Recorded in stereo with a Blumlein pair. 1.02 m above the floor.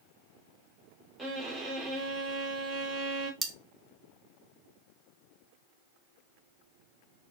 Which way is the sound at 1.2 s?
15° right.